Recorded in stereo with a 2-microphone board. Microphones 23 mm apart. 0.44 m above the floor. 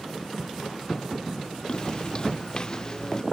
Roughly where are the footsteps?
Left.